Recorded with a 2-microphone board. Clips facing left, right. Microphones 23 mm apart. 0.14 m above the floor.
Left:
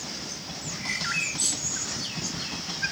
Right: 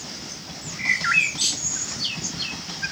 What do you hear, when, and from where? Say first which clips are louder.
0.8 s a bird: right 9 dB; 40° right (ahead or behind), 0.8 m